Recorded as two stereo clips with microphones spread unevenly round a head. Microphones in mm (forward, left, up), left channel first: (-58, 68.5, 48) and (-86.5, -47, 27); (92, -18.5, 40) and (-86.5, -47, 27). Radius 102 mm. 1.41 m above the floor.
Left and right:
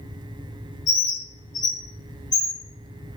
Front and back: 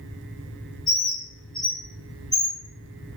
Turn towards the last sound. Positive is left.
turn(degrees=100)